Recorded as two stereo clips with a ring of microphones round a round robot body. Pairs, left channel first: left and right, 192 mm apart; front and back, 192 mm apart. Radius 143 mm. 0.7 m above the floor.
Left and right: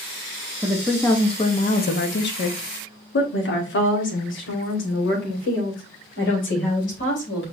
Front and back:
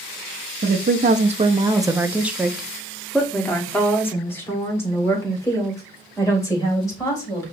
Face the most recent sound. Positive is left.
turn(degrees=70)